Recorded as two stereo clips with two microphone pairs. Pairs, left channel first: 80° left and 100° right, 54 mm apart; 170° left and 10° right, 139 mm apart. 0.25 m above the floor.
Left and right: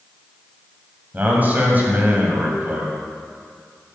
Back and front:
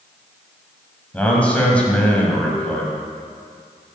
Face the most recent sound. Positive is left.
turn(degrees=-115)